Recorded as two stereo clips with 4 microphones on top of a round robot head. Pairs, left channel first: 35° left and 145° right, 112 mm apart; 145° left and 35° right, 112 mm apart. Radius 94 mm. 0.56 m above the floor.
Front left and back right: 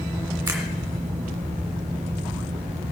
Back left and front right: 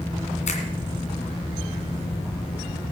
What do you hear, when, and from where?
0.5 s a finger snap: 145° left, 2.5 m